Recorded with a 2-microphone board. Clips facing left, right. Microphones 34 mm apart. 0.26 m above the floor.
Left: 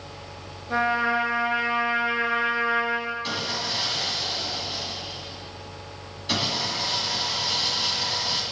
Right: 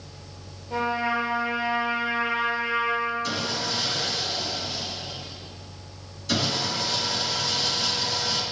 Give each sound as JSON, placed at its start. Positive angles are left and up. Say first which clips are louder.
{"t": 0.7, "sound": "a trumpet", "louder": "left 3 dB", "side_deg": 70, "distance_m": 3.5}
{"t": 3.2, "sound": "sawing", "louder": "even", "side_deg": 30, "distance_m": 2.0}